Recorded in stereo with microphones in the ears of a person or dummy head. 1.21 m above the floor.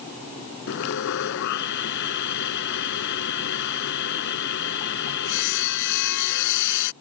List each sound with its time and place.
0.7 s sawing: 65° left (ahead or behind)